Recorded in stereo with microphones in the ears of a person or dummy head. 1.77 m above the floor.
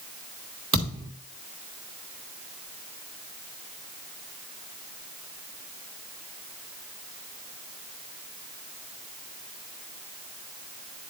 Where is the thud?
30° right (ahead or behind), 1.5 m.